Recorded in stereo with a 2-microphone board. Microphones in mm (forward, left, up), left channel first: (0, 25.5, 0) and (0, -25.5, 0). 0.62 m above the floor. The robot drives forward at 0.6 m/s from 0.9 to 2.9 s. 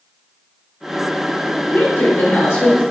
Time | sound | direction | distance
1.7 | a woman speaking | 55° left (ahead or behind) | 1.6 m